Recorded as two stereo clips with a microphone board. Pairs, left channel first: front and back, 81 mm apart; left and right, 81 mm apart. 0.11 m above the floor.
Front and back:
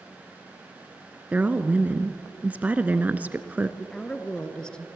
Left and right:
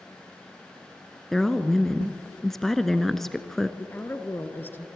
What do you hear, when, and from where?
1.3 s a woman speaking: 170° left, 1.1 m
3.8 s a woman speaking: 70° left, 1.6 m